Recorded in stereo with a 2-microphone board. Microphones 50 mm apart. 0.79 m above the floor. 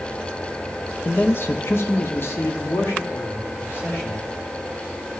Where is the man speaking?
45° left (ahead or behind), 0.6 m; by 4.2 s 60° left (ahead or behind), 2 m.